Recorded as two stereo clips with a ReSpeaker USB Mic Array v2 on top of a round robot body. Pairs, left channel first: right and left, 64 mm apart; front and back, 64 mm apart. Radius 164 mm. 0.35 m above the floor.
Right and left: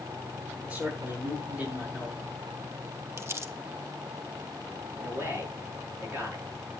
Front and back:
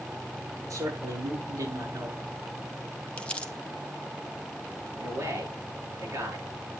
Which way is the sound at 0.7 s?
155° left.